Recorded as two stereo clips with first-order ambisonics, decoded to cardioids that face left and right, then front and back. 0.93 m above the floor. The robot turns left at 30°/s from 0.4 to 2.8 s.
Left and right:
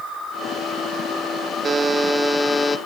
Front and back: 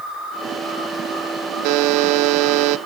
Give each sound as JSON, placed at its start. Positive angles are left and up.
{"t": 1.6, "sound": "a buzzer", "azimuth_deg": -160, "distance_m": 0.7}